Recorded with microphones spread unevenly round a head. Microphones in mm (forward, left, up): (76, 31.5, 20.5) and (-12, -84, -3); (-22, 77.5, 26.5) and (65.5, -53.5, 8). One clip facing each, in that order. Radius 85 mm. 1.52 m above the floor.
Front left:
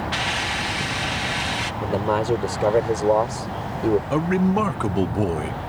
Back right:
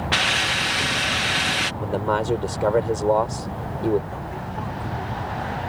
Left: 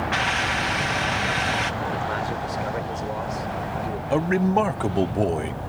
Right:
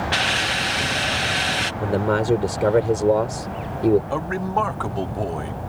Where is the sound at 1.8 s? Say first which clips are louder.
Front left 1 dB, right 6 dB; 30° right.